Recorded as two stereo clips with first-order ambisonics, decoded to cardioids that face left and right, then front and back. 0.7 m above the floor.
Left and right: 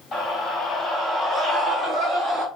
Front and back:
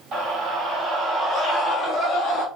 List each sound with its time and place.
0.1 s a scream: 150° left, 1.1 m; by 2.5 s 50° right, 1.0 m